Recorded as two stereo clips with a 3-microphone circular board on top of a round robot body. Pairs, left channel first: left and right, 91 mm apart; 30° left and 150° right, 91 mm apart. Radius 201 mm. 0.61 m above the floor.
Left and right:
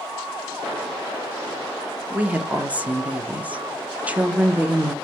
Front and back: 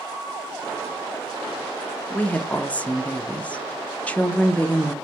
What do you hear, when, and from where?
2.1 s a woman speaking: 30° right, 0.7 m